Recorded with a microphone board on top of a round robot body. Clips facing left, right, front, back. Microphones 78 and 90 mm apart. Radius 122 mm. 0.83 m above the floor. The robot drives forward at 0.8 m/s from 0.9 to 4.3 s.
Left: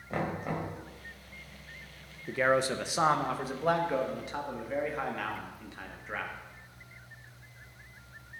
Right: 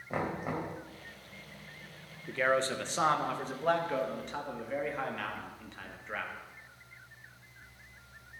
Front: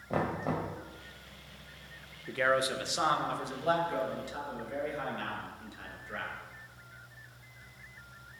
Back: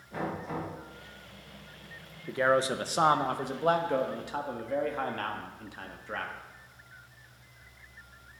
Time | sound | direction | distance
0.1 | knocking | 10° right | 3 m
2.3 | a man speaking | 145° left | 1.0 m